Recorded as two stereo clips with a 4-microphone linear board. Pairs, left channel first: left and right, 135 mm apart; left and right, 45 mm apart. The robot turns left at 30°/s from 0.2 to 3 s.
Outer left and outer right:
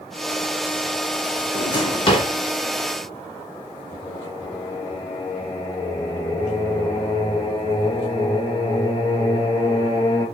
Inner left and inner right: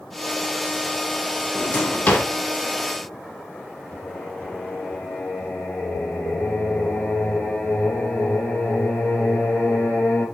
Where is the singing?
55° left (ahead or behind), 2.5 m.